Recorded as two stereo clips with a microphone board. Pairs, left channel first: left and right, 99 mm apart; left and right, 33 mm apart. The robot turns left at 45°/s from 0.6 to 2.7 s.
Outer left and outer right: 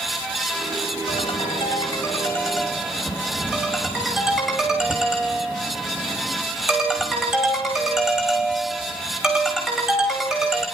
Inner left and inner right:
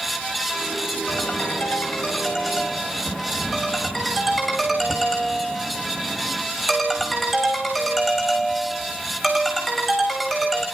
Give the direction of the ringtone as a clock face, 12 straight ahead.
10 o'clock.